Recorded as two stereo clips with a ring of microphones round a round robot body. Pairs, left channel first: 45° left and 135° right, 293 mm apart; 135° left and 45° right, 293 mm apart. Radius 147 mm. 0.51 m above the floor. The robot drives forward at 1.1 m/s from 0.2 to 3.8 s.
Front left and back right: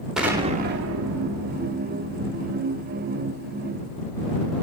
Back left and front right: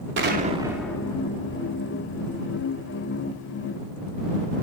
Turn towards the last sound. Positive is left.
turn(degrees=-175)